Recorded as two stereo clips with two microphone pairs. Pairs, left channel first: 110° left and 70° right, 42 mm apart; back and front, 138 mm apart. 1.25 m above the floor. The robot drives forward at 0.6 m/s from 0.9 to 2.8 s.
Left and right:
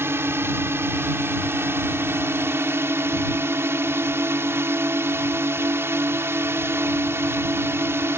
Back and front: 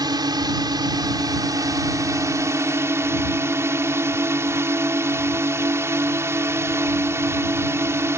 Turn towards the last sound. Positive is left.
turn(degrees=-70)